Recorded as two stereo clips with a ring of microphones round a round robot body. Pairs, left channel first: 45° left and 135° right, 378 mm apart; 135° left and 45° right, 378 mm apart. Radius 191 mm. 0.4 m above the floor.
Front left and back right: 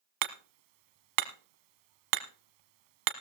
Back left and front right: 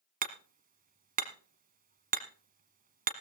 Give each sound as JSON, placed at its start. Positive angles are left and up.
{"t": 0.2, "sound": "hammering", "azimuth_deg": -115, "distance_m": 1.3}